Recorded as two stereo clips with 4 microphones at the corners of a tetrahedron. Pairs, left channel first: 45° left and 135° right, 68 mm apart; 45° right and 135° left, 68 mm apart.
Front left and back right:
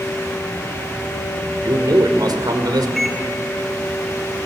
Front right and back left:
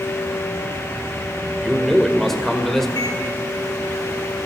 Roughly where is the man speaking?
Behind right.